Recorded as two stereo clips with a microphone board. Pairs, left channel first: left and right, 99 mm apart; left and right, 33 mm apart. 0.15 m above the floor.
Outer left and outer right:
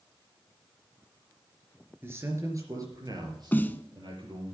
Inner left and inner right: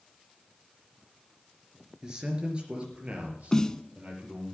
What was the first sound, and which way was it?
A man speaking, 25° right (ahead or behind).